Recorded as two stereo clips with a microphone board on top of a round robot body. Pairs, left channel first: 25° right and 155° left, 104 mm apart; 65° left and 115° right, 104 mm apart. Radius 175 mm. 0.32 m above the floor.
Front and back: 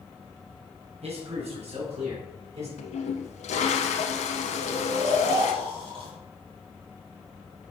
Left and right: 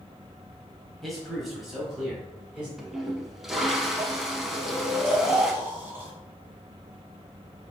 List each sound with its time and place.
1.0 s a man speaking: 155° left, 2.5 m; by 2.7 s 165° left, 4 m
2.8 s a toilet flushing: 25° right, 0.7 m
4.5 s snoring: straight behind, 3.5 m